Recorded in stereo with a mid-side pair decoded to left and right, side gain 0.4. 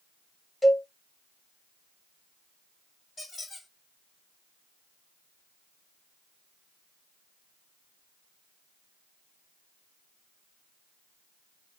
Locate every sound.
0.6 s a cowbell: straight ahead, 1.1 m
3.2 s a squeak: 55° left, 2.5 m